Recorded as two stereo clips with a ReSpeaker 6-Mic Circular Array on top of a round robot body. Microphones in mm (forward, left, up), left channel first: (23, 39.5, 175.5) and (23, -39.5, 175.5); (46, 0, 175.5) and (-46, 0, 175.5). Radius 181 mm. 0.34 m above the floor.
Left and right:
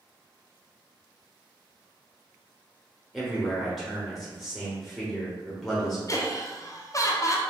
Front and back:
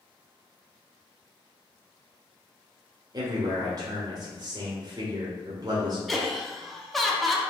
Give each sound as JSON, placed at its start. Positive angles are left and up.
{"t": 3.1, "sound": "a man speaking", "azimuth_deg": 175, "distance_m": 1.3}
{"t": 6.1, "sound": "laughter", "azimuth_deg": 90, "distance_m": 1.0}